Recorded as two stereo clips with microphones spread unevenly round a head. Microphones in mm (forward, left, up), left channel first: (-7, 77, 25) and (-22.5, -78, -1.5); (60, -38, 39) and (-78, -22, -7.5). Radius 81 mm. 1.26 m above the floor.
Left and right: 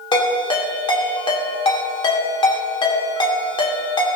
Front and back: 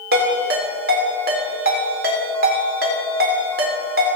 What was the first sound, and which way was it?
A ringtone, 145° left.